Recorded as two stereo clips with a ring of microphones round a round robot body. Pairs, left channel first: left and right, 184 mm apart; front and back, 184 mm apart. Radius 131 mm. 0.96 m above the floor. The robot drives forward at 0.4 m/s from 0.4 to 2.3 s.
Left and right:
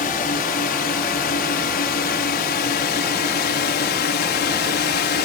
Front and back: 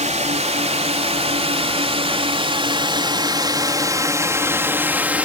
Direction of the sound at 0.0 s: 135° left.